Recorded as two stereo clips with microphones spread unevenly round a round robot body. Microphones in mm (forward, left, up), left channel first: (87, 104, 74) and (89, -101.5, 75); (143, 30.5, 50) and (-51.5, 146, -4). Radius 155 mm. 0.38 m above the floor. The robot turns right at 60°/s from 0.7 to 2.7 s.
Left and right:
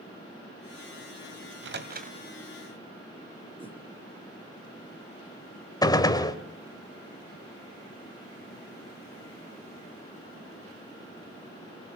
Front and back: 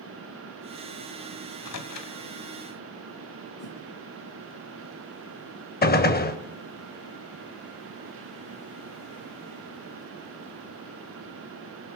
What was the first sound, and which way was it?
A microwave, 80° right.